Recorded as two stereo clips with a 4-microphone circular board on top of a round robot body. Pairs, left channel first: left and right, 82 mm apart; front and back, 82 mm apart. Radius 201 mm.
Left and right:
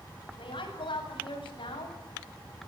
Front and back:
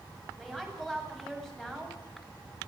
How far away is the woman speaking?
About 8 m.